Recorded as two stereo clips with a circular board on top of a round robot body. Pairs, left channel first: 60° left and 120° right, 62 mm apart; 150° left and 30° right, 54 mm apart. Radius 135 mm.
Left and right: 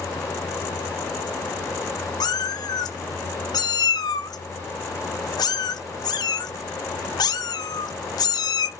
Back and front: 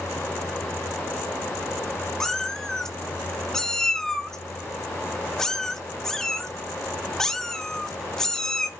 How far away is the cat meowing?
About 0.8 m.